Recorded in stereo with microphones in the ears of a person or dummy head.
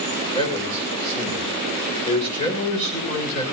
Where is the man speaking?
30° left (ahead or behind), 7 m.